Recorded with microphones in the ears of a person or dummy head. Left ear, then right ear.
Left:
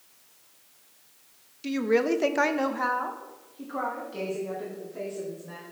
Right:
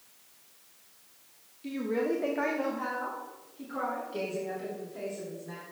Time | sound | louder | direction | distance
1.6 | a woman speaking | left 6 dB | 55° left (ahead or behind) | 0.8 m